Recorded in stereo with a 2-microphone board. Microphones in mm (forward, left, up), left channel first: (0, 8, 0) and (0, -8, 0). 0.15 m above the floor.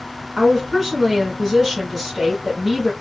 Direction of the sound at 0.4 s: 25° right (ahead or behind).